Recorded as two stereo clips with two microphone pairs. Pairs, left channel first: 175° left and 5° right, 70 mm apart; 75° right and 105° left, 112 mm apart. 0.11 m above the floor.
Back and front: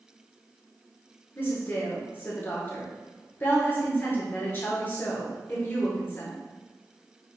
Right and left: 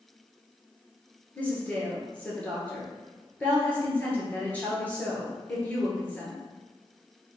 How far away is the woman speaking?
About 1.4 m.